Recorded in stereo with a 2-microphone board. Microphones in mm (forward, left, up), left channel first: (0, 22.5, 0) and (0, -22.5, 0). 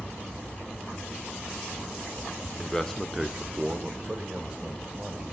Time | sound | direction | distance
2.6 | a man speaking | 20° left (ahead or behind) | 0.9 m